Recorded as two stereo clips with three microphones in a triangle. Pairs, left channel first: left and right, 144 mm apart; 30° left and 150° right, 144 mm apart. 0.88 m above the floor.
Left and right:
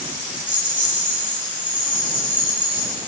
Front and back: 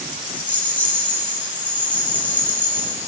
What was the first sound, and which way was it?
A rattle, 110° left.